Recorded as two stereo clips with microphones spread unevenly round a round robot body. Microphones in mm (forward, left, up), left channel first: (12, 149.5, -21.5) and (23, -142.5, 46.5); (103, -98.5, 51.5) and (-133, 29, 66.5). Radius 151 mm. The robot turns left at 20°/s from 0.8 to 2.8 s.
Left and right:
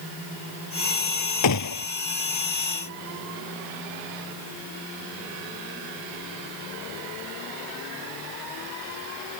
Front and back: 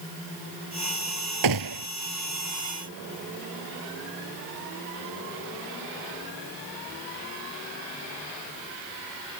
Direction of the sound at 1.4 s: 135° left.